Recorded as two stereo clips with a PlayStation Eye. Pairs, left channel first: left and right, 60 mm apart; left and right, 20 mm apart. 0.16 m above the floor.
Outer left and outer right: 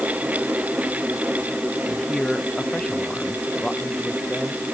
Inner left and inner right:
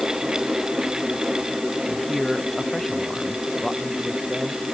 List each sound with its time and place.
1.9 s a man speaking: 10° left (ahead or behind); by 4.7 s 15° left (ahead or behind)